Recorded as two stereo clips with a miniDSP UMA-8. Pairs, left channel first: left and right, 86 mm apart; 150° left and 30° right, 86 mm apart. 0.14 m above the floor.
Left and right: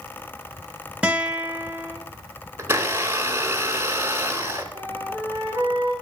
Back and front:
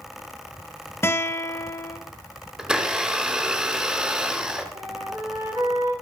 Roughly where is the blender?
Right.